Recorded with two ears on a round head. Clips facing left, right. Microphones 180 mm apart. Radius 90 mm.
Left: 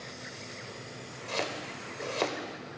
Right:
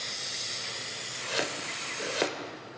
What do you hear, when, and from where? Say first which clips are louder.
1.3 s chopping: right 1 dB; 15° right (ahead or behind), 0.7 m